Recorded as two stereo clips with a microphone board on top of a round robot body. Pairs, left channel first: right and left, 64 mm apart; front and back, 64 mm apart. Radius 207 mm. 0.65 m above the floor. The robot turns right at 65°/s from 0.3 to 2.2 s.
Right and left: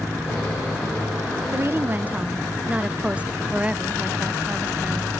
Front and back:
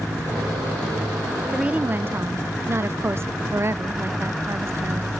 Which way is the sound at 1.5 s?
110° left.